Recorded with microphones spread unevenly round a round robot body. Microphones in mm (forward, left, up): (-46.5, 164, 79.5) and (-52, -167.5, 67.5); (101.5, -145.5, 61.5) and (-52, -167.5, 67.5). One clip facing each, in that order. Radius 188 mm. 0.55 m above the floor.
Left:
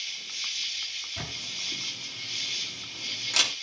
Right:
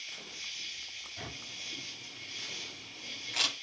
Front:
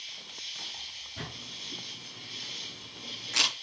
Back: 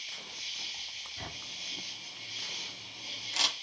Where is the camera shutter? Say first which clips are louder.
Left 4 dB, front 3 dB; 60° left, 8.5 m.